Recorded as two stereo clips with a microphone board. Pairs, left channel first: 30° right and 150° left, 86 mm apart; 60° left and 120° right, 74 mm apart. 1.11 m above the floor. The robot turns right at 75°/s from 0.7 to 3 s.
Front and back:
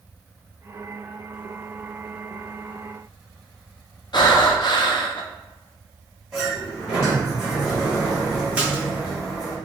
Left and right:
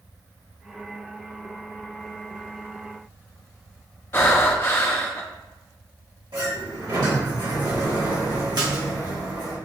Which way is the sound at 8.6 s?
135° right.